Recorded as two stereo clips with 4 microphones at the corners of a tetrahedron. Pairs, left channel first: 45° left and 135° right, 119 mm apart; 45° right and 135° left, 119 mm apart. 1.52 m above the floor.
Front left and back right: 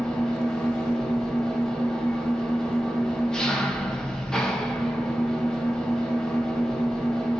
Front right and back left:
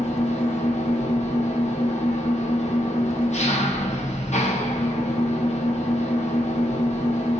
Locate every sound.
0.0 s an engine running: 40° right, 0.7 m